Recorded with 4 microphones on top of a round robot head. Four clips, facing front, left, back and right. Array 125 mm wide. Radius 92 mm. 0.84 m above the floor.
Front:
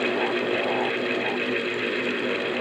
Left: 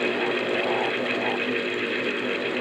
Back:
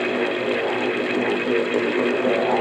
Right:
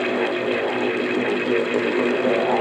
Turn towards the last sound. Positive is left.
No sound to turn to.